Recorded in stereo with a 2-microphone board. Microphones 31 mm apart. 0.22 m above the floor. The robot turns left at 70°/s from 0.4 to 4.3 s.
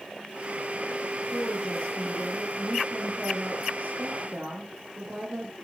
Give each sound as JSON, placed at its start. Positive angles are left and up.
{"t": 1.3, "sound": "a woman speaking", "azimuth_deg": 95, "distance_m": 4.5}